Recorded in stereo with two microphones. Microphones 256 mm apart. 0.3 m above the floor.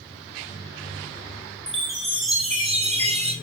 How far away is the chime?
About 2 m.